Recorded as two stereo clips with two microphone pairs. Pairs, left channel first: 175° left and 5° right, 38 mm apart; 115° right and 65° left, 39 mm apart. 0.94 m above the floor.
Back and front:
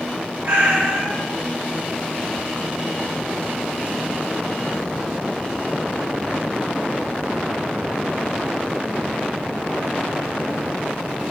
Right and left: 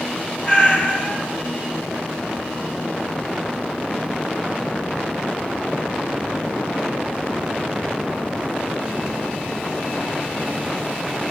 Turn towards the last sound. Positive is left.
turn(degrees=-55)